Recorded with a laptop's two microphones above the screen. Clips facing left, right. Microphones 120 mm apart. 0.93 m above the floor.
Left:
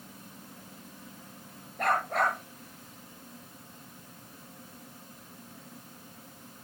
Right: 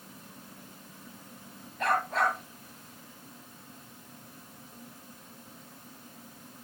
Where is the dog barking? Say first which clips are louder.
Even; 65° left (ahead or behind), 8 m.